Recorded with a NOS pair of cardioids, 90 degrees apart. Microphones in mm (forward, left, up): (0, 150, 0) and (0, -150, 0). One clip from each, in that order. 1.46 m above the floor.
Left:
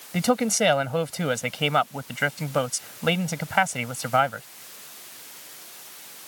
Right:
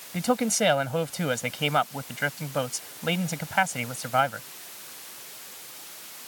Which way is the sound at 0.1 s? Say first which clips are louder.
Left 2 dB; 45° left.